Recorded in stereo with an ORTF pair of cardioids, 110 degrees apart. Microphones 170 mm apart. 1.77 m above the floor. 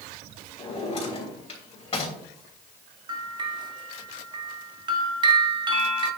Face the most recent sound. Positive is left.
turn(degrees=-25)